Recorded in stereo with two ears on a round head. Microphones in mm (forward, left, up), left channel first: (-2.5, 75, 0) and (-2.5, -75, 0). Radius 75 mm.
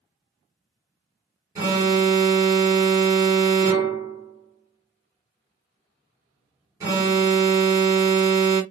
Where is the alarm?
15° right (ahead or behind), 1.2 m.